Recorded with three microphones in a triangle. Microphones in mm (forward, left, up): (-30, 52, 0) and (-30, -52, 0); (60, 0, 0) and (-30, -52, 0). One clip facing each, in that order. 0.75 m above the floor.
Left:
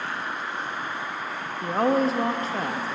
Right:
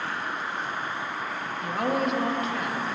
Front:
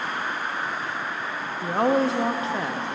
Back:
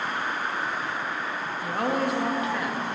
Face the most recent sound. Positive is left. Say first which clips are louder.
# left 5 dB, front 5 dB
turn(degrees=70)